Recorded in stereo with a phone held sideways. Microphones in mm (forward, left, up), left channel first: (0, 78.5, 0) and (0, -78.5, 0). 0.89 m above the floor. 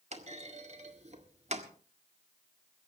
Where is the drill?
No drill in this recording.